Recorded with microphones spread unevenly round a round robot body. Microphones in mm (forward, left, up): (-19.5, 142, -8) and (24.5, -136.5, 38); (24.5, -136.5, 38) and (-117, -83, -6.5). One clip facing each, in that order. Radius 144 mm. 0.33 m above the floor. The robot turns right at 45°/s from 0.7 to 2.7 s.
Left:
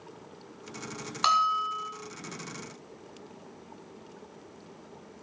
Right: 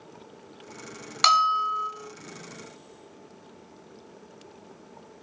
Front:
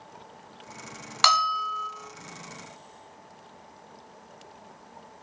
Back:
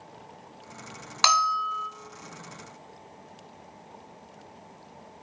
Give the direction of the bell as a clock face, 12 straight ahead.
4 o'clock.